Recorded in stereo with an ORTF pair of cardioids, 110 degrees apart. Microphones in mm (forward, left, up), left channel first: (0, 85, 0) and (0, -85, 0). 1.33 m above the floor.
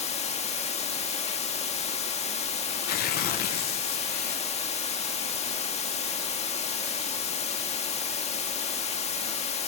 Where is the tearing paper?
60° left, 0.8 m.